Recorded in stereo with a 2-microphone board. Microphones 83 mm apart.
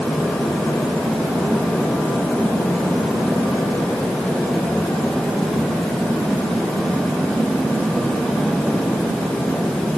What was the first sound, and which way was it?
Only background noise.